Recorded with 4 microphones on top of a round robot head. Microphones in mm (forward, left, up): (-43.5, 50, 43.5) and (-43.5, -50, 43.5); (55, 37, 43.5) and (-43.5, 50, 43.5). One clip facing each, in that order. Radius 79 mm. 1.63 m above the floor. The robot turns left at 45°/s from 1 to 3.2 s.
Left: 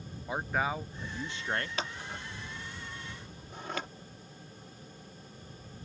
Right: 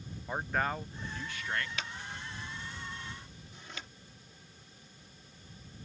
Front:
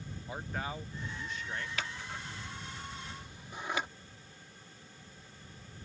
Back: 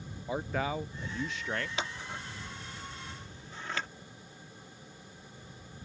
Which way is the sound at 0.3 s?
175° left.